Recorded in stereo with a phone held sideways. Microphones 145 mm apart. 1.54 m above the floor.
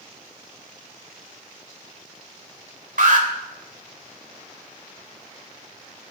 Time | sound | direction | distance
3.0 | an alarm | 70° right (ahead or behind) | 3.5 m